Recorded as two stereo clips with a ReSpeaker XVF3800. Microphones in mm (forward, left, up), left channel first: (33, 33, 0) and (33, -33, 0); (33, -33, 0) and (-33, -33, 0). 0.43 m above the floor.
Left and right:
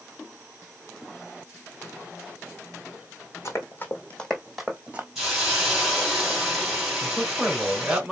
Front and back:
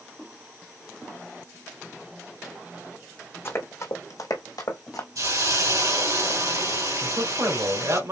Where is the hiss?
170° right, 3 m.